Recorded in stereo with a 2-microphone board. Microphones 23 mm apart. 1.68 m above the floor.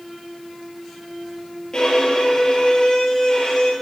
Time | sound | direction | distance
1.7 | a violin | 40° left (ahead or behind) | 7 m